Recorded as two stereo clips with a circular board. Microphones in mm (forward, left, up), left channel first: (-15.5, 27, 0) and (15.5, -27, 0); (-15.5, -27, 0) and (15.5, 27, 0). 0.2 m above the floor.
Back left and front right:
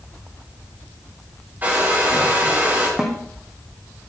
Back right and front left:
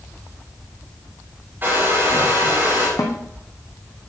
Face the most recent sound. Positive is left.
turn(degrees=-140)